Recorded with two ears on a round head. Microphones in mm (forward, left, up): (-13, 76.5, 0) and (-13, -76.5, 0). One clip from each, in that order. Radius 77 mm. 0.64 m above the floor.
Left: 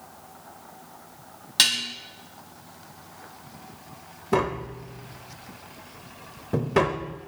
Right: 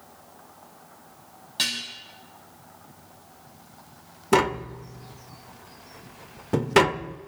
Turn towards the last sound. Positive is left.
turn(degrees=-75)  # may be behind; listen again after turning